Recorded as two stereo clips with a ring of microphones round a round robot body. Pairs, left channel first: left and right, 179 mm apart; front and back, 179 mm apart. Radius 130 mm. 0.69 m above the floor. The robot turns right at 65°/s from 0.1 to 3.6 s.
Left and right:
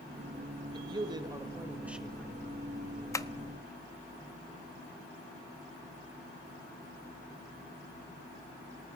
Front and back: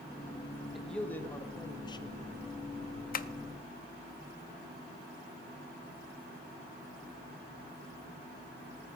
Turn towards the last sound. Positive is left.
turn(degrees=50)